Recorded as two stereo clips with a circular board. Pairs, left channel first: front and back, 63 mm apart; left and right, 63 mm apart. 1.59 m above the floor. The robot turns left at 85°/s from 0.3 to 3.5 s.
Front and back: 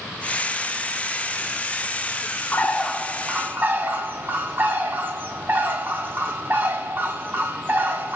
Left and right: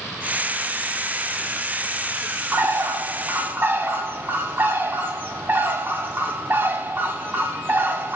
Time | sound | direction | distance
2.5 | a bird | 50° right | 0.5 m